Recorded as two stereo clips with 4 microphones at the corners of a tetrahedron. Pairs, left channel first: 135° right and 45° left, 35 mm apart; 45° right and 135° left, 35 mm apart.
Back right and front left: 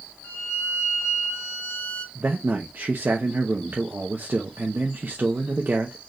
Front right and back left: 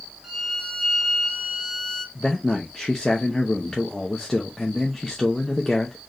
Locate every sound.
0.2 s a violin: 145° right, 2.5 m
2.1 s a man speaking: 30° left, 0.7 m